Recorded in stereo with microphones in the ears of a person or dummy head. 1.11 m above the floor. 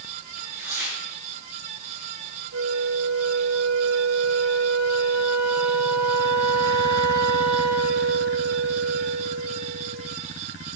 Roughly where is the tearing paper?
Centre.